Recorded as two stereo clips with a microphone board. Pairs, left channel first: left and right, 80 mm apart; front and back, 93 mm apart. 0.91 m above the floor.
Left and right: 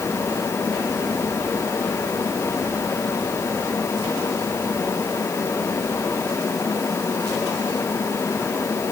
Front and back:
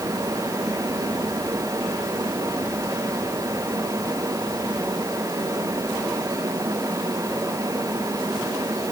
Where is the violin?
I don't hear a violin.